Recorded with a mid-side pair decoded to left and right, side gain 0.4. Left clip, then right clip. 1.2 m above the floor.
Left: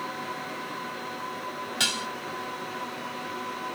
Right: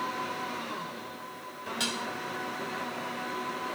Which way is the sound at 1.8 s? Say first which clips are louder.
Left 6 dB; 50° left.